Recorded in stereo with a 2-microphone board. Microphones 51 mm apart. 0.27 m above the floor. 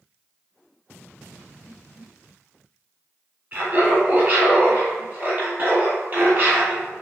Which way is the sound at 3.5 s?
25° right (ahead or behind).